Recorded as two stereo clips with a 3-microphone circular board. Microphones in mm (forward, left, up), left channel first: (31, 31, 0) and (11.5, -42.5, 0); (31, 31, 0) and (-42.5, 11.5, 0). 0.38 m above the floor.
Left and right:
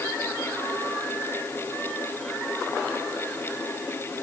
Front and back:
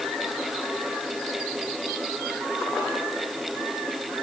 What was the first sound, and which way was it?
Only background noise.